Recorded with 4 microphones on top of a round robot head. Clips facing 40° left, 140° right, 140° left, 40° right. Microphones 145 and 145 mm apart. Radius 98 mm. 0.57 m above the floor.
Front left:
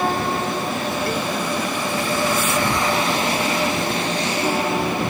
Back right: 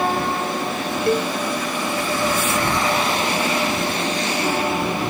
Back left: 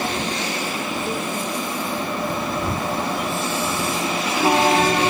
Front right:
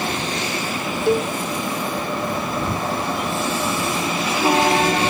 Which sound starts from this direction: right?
A cowbell, at 1.1 s.